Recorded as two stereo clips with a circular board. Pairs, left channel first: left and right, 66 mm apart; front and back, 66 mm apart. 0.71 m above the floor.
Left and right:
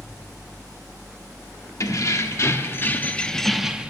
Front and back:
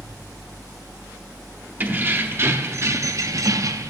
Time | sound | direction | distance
1.8 | keys jangling | 120° left | 1.1 m